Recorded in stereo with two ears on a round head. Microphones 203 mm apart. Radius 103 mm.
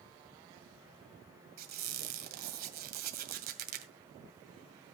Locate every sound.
1.6 s a squeak: 45° right (ahead or behind), 2 m